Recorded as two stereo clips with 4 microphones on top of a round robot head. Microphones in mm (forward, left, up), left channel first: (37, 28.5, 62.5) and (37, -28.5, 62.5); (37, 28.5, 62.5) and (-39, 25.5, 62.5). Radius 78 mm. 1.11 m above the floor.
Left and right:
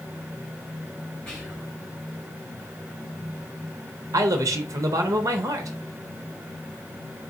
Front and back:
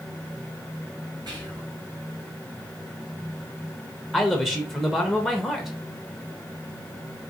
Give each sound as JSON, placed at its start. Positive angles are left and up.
{"t": 1.3, "sound": "whispering", "azimuth_deg": 165, "distance_m": 2.0}
{"t": 4.1, "sound": "a man speaking", "azimuth_deg": -90, "distance_m": 0.6}